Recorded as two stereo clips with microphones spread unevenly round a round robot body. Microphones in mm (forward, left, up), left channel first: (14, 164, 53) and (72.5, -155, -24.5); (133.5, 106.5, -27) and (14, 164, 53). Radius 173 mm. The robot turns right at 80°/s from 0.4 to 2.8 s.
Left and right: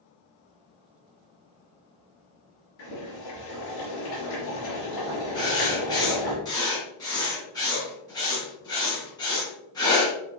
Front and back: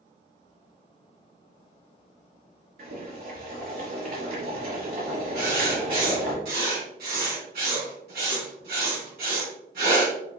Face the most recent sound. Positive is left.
turn(degrees=180)